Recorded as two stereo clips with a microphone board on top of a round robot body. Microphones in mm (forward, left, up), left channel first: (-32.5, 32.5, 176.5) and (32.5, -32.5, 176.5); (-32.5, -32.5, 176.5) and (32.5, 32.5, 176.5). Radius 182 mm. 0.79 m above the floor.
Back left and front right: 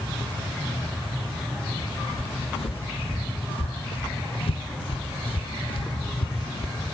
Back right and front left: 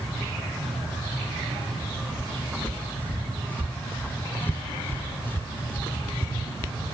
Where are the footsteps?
150° left; by 6.7 s 160° left.